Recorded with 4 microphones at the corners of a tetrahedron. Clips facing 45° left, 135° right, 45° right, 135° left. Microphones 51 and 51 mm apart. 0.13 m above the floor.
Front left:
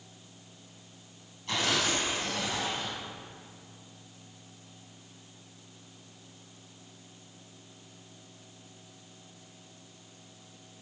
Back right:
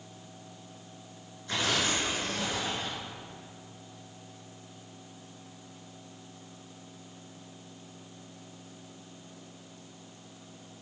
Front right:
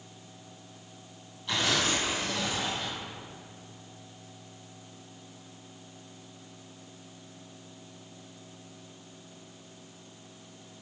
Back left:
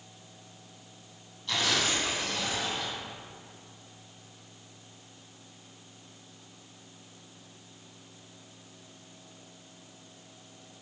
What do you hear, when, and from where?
1.5 s tearing paper: 35° left, 2.5 m